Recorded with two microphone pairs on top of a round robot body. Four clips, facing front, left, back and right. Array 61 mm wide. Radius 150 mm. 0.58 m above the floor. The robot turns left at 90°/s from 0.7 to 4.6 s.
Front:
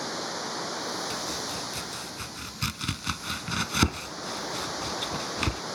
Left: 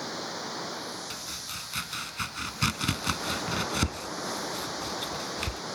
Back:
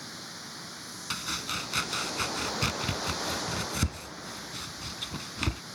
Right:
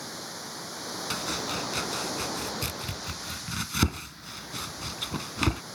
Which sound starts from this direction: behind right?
Chopping, at 1.1 s.